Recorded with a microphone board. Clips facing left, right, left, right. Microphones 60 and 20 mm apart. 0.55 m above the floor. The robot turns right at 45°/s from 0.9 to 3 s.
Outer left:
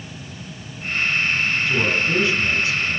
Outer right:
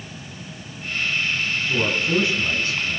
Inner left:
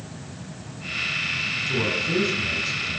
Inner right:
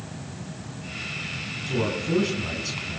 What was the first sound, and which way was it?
A man speaking, 175° left.